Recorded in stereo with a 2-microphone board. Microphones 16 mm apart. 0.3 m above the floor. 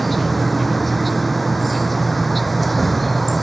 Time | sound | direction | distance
0.0 | an insect | 5° left (ahead or behind) | ?